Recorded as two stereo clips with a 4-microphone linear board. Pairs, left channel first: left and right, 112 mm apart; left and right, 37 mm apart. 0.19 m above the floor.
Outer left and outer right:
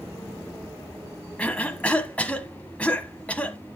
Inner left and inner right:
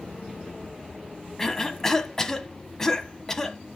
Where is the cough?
10° left (ahead or behind), 1.1 m.